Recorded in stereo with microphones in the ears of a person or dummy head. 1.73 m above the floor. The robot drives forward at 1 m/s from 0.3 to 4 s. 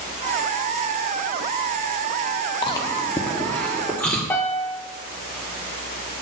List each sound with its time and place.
2.6 s chewing: 25° left (ahead or behind), 0.5 m; by 4.2 s 5° left (ahead or behind), 1.8 m
4.3 s a piano: 10° left (ahead or behind), 0.7 m